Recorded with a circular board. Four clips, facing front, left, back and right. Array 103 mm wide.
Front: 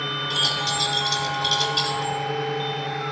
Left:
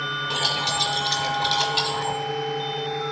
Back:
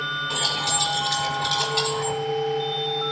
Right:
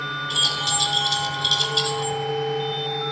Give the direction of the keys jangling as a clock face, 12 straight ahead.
8 o'clock.